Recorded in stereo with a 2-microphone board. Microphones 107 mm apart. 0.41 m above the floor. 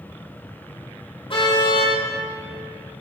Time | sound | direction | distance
1.3 | a car horn | 50° left (ahead or behind) | 7 m